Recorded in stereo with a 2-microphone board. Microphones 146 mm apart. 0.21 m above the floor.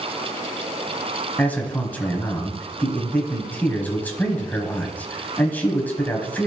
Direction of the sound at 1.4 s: 10° left (ahead or behind).